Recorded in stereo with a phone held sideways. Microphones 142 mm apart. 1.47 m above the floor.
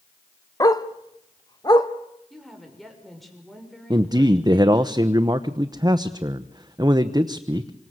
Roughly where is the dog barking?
Left.